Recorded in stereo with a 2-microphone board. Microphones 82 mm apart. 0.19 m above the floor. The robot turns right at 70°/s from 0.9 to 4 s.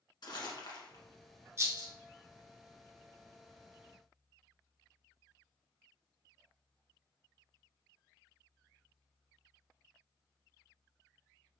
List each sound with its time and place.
0.2 s crumpling: 60° left (ahead or behind), 1.3 m; by 1.0 s 55° left (ahead or behind), 1.3 m
1.6 s a rattle: 30° right (ahead or behind), 1.3 m; by 1.9 s 50° right (ahead or behind), 1.3 m